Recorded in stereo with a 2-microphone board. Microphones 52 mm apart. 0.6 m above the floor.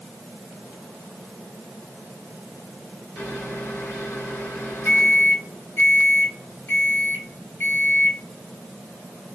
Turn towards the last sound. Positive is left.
turn(degrees=45)  # may be behind; listen again after turning